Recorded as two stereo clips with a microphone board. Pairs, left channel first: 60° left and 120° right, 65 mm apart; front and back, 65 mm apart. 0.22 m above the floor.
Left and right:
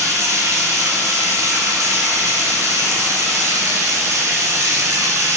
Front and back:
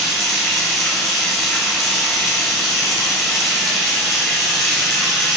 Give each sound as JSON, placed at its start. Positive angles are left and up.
{"t": 0.0, "sound": "running water", "azimuth_deg": -90, "distance_m": 1.6}